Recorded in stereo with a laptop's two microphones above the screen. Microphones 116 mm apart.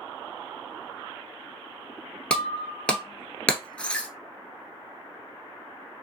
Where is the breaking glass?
10° left (ahead or behind), 1.0 m.